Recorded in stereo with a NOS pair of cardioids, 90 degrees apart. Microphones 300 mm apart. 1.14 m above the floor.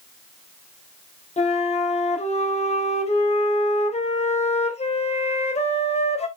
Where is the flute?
20° left, 3.5 m.